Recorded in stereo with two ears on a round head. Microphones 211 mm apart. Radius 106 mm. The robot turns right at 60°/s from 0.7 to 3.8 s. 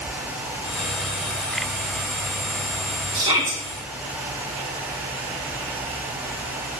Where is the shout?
35° right (ahead or behind), 2.5 m; by 3.6 s 5° right (ahead or behind), 2.5 m.